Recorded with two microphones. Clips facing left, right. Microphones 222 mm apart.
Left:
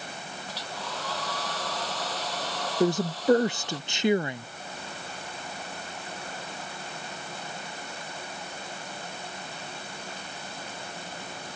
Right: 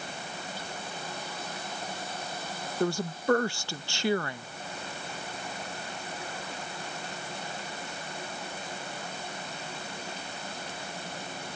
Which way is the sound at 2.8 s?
20° left (ahead or behind).